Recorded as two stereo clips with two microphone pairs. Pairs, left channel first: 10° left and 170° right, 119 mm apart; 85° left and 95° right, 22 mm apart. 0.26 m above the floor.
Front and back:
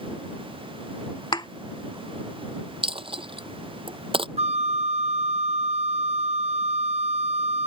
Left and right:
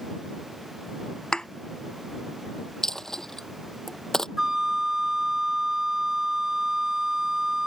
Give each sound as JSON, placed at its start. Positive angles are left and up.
{"t": 1.3, "sound": "a thud", "azimuth_deg": 50}
{"t": 2.8, "sound": "a dropped coin", "azimuth_deg": 150}
{"t": 4.4, "sound": "a flute", "azimuth_deg": -160}